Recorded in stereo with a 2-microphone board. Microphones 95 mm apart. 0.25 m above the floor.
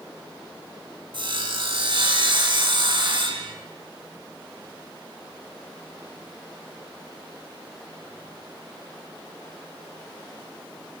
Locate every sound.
1.1 s sawing: 60° right (ahead or behind), 1.8 m